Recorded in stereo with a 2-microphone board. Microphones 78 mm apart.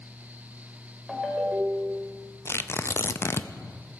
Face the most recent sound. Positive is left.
turn(degrees=35)  # may be behind; listen again after turning